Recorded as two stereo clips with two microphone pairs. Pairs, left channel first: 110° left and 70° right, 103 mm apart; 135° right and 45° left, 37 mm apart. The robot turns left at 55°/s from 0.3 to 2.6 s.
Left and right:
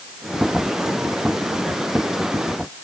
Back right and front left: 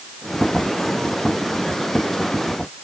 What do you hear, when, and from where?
Only background noise.